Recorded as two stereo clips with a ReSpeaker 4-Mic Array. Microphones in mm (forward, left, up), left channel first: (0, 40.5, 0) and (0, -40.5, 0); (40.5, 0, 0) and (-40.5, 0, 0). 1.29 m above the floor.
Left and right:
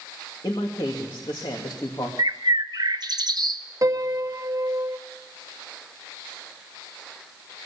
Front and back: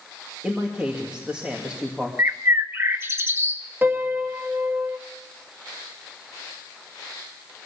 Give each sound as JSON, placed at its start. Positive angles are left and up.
{"t": 0.4, "sound": "a man speaking", "azimuth_deg": 100, "distance_m": 2.5}
{"t": 2.2, "sound": "a bird", "azimuth_deg": -120, "distance_m": 1.1}
{"t": 3.8, "sound": "a piano", "azimuth_deg": -120, "distance_m": 0.9}